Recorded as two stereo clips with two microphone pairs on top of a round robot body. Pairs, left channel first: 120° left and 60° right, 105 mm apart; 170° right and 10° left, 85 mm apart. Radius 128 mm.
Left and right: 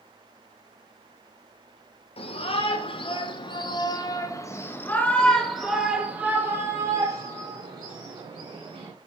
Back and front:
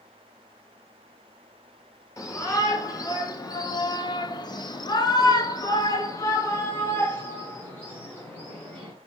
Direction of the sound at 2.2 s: 145° left.